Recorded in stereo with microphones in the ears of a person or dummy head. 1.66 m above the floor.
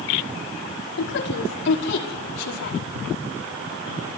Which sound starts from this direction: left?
A woman speaking, at 1.0 s.